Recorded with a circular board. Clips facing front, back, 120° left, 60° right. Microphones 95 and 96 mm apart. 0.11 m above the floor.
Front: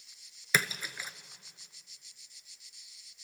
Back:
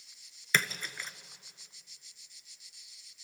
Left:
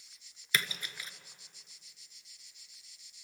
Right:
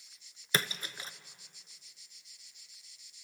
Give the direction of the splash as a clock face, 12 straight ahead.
3 o'clock.